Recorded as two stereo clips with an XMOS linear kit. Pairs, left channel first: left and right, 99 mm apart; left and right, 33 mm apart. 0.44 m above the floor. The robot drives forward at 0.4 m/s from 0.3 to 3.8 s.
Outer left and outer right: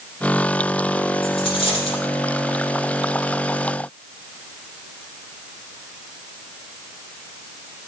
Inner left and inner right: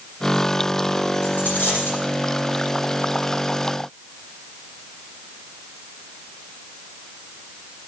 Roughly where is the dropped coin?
Left.